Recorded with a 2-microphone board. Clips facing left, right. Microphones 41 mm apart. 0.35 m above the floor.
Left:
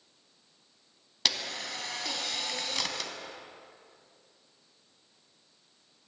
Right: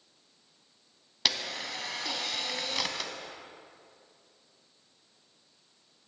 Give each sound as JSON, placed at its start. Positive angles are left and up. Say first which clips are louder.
{"t": 1.2, "sound": "a camera shutter", "louder": "right 1 dB", "side_deg": -5, "distance_m": 0.6}